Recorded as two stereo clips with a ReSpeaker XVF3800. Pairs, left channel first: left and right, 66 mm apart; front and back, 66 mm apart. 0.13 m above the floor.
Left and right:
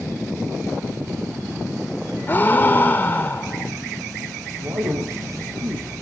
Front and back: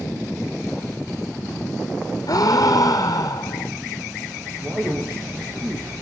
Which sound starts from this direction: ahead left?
A gasp, at 2.3 s.